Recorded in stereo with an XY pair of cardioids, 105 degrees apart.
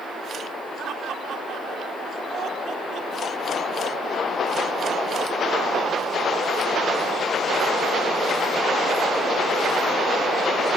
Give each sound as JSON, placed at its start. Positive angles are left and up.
{"t": 0.8, "sound": "laughter", "azimuth_deg": -65, "distance_m": 4.0}